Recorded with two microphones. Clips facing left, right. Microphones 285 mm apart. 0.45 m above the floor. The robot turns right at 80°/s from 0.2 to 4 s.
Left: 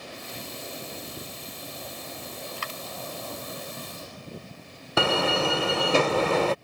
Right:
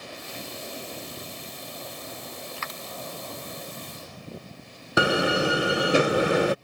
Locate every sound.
2.6 s a dropped coin: 45° left (ahead or behind); by 2.8 s 25° left (ahead or behind)
5.0 s a door slam: 15° right (ahead or behind)